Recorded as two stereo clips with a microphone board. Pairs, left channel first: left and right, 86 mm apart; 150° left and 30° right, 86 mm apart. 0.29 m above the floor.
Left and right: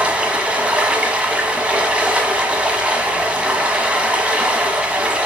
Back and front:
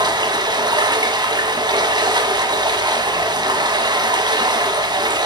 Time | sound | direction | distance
0.0 | running water | 15° right | 1.2 m